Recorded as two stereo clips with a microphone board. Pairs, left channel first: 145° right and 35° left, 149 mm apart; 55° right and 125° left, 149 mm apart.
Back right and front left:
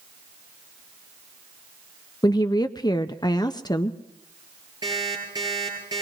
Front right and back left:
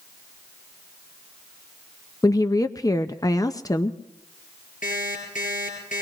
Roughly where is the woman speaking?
Right.